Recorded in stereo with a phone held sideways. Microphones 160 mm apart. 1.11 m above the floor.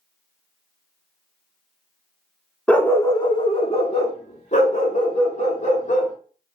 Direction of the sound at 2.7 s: 5° left (ahead or behind).